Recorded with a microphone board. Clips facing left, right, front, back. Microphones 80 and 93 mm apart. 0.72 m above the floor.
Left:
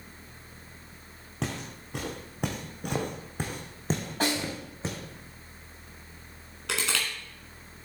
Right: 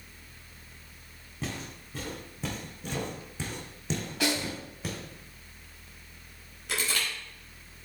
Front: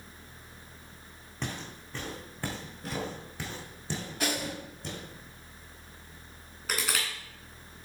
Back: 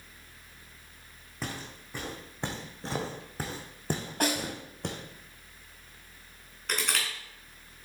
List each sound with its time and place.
1.4 s footsteps: 95° left, 2.5 m; by 5.0 s 155° left, 2.5 m
4.2 s a snare drum: 140° left, 5.5 m
6.7 s crushing: 85° left, 3 m